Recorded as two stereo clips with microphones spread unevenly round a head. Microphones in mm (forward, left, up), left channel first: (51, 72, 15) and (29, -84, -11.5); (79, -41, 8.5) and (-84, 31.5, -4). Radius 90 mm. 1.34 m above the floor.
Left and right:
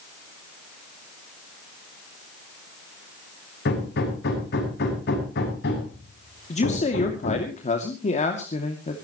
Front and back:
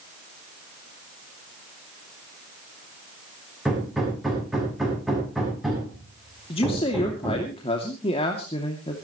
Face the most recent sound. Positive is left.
turn(degrees=35)